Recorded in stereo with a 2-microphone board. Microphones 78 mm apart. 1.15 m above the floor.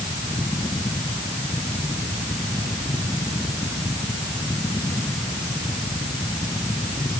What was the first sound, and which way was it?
Only background noise.